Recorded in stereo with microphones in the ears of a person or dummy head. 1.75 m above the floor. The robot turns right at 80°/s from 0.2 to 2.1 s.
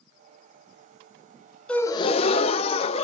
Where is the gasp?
5° left, 0.7 m; by 3.0 s 40° left, 0.7 m.